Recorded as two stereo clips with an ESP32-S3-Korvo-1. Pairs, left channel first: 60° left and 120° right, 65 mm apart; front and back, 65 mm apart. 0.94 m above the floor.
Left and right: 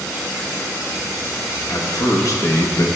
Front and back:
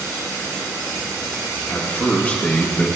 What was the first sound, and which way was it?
A man speaking, 55° left.